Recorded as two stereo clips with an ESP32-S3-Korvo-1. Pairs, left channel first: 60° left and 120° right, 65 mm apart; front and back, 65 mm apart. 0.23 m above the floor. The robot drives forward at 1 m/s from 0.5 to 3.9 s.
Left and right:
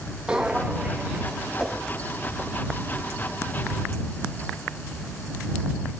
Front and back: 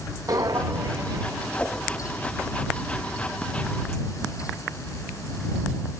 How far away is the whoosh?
About 0.8 m.